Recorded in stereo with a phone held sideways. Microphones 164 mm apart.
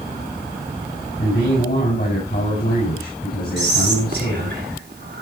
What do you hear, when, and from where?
1.2 s a man speaking: 65° left (ahead or behind), 5.5 m
3.6 s whispering: 70° right (ahead or behind), 4 m